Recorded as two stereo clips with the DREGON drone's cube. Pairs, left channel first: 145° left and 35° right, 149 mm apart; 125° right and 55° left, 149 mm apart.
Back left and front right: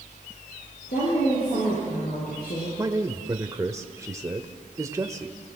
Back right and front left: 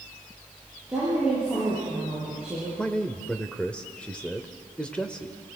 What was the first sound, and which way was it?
A woman speaking, 140° left.